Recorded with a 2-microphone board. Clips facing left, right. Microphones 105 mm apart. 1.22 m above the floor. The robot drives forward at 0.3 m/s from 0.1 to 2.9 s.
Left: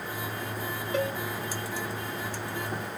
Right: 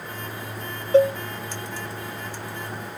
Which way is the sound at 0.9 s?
30° right (ahead or behind).